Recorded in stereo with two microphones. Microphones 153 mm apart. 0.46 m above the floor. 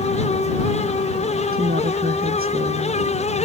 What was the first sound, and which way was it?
A woman speaking, 80° right.